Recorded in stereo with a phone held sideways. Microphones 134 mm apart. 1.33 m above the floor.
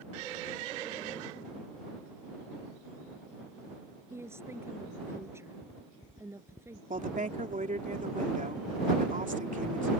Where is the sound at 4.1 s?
20° right (ahead or behind).